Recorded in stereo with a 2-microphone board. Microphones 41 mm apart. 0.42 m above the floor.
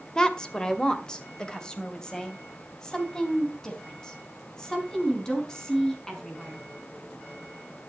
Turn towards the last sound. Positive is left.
turn(degrees=15)  # may be behind; listen again after turning